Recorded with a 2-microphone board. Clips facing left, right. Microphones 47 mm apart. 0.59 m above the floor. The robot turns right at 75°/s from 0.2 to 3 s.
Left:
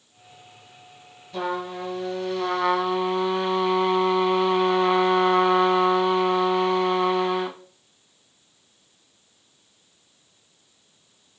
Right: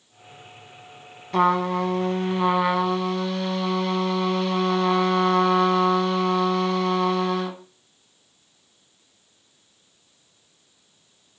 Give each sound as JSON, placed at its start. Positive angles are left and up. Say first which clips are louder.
{"t": 1.3, "sound": "a trumpet", "louder": "right 8 dB", "azimuth_deg": -105, "distance_m": 1.1}